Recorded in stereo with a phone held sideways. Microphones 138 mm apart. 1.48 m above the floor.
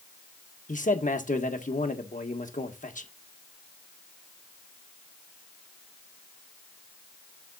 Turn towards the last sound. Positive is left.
turn(degrees=70)  # may be behind; listen again after turning